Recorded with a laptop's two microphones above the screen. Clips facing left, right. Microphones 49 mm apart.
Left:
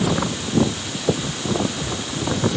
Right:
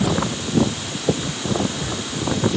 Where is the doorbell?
No doorbell in this recording.